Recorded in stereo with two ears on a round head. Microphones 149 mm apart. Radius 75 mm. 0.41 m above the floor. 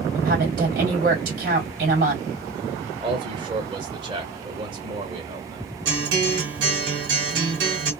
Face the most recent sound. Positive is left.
turn(degrees=-75)  # may be behind; listen again after turning